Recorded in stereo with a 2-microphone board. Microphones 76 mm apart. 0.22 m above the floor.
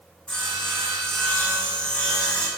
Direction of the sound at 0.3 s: 10° left (ahead or behind).